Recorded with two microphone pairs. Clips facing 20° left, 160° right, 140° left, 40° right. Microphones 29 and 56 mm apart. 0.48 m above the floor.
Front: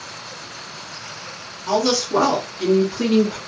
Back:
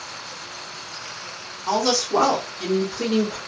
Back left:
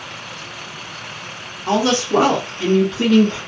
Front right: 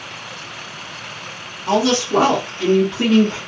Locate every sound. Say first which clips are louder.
1.7 s a woman speaking: front 2 dB, even; 115° left, 1.6 m; by 3.4 s 15° right, 1.3 m